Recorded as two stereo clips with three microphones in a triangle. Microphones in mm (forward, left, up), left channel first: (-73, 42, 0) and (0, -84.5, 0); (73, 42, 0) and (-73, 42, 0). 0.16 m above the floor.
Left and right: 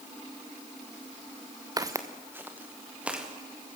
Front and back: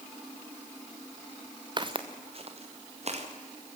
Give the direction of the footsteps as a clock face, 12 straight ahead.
4 o'clock.